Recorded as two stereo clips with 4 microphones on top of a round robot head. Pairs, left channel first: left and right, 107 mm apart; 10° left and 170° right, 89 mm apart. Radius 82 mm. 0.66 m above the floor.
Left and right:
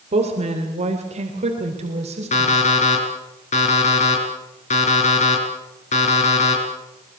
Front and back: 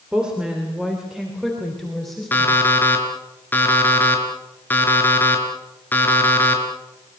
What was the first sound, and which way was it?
A woman speaking, 90° right.